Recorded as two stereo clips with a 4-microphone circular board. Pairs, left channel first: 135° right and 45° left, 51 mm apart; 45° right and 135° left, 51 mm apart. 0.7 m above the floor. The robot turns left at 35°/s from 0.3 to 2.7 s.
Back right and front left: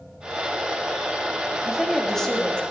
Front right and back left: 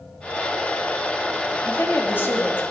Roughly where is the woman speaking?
Ahead right.